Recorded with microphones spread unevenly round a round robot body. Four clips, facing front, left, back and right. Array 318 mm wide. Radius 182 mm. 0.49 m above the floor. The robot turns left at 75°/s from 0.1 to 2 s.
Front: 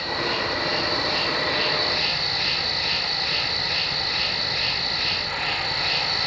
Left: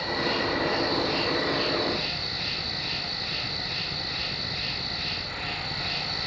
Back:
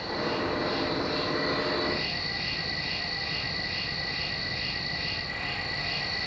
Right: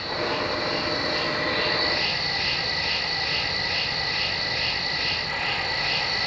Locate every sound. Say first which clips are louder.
0.0 s an insect: right 1 dB, front 3 dB; 110° left, 2 m; by 6.3 s 35° right, 2 m